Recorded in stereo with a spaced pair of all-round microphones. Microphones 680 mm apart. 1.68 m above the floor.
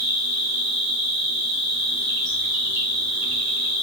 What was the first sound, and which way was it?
An insect, 35° right (ahead or behind).